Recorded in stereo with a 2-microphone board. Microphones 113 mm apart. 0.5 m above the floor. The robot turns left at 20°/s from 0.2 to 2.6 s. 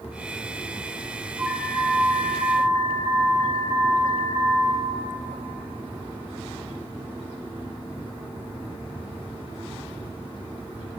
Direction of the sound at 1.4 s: 20° right (ahead or behind).